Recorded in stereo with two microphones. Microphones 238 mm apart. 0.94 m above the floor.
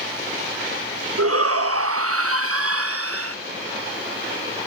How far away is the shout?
About 1.1 m.